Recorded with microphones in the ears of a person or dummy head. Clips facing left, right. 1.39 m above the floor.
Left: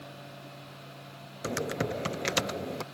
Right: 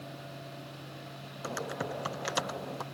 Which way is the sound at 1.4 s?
30° left (ahead or behind).